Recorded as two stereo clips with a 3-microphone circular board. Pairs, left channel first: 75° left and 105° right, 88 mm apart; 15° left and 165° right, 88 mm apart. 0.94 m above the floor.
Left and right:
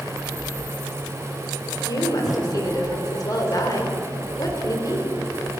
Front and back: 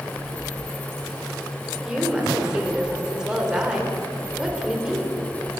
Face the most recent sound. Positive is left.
turn(degrees=115)